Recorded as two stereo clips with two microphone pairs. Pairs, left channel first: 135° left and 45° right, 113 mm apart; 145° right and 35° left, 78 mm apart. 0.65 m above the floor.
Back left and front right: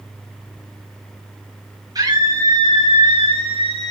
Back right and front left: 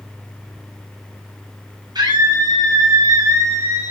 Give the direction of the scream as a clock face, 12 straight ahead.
12 o'clock.